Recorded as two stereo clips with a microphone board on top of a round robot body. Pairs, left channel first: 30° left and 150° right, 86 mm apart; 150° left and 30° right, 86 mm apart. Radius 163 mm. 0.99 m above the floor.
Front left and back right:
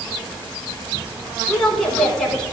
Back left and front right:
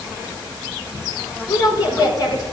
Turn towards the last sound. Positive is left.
turn(degrees=115)